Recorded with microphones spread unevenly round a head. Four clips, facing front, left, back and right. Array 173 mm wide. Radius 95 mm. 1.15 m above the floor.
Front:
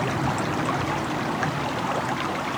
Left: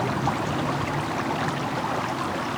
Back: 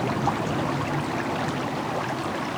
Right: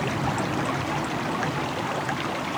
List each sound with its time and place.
Only background noise.